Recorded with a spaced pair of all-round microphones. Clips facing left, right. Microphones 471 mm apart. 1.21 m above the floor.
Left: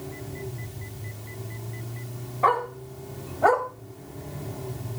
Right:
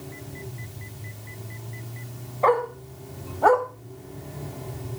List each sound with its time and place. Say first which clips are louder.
2.4 s a dog barking: right 6 dB; 30° left (ahead or behind), 2.5 m; by 3.7 s 45° left (ahead or behind), 1.5 m